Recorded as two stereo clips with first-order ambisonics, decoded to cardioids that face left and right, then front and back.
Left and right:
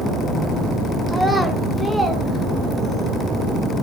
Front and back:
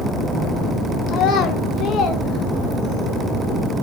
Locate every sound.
1.1 s a child speaking: straight ahead, 0.6 m